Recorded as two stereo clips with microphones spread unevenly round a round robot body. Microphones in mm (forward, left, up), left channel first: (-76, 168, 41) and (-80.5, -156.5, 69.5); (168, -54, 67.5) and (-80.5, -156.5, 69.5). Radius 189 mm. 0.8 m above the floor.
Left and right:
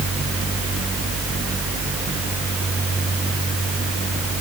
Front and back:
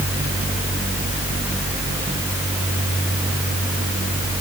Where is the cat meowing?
I don't hear a cat meowing.